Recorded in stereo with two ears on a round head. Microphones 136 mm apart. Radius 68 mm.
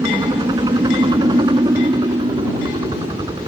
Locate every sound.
0.0 s a helicopter: 25° right (ahead or behind)